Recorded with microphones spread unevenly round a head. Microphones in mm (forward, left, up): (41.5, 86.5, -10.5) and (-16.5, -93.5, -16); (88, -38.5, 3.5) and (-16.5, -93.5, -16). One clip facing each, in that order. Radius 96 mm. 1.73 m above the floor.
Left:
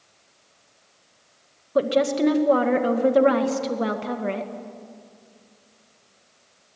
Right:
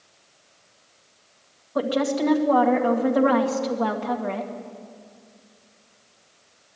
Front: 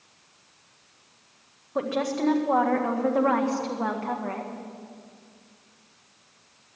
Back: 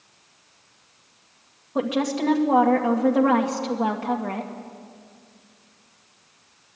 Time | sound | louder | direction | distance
1.8 | a woman speaking | left 3 dB, back 3 dB | 130° left | 2 m